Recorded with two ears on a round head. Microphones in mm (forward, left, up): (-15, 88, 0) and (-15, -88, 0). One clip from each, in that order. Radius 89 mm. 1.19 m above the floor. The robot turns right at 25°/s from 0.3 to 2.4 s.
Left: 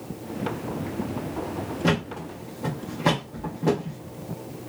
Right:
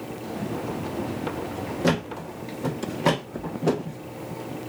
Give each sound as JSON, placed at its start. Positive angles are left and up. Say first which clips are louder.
{"t": 1.8, "sound": "a thud", "louder": "right 1 dB", "side_deg": -15, "distance_m": 0.8}